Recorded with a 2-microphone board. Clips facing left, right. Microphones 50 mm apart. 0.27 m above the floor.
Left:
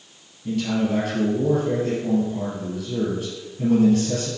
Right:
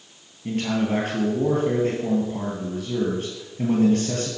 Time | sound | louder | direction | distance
0.5 | a man speaking | left 1 dB | 45° right (ahead or behind) | 2.5 m